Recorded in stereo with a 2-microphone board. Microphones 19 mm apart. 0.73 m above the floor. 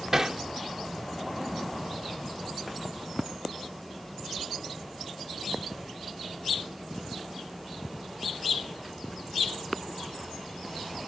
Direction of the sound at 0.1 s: 30° right (ahead or behind).